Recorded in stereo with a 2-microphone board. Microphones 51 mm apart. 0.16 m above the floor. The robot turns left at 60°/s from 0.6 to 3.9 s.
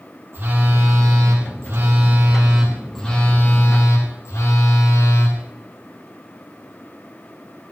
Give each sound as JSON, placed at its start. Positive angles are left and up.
{"t": 0.3, "sound": "a phone buzzing", "azimuth_deg": -50, "distance_m": 6.5}